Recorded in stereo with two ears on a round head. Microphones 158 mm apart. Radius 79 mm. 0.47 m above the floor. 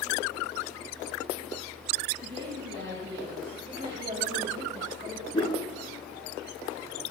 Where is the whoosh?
25° left (ahead or behind), 4 m.